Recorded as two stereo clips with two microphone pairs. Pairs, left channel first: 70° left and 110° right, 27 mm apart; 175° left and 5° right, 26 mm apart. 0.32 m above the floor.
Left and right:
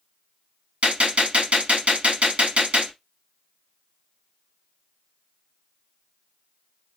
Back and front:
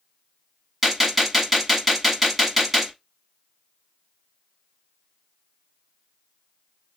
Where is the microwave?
No microwave in this recording.